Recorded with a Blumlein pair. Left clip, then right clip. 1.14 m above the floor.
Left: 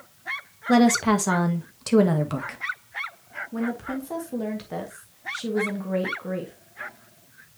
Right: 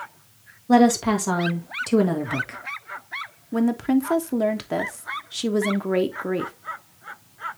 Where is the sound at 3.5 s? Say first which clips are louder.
Right 9 dB; 25° right, 1.1 m.